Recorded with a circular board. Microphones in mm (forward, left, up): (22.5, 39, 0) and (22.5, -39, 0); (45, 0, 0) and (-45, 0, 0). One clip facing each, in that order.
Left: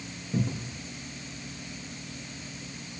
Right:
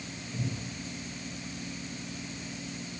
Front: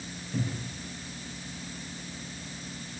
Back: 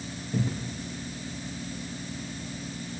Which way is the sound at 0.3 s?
130° left.